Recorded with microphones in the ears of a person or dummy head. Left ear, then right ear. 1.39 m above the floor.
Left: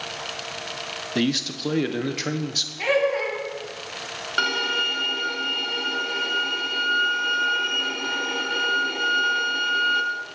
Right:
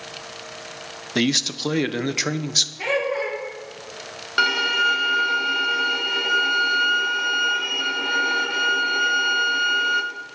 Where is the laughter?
10° left (ahead or behind), 3.5 m.